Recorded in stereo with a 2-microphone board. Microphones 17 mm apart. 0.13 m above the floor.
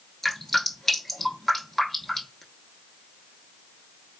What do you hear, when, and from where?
0.2 s dripping: 25° left (ahead or behind), 0.7 m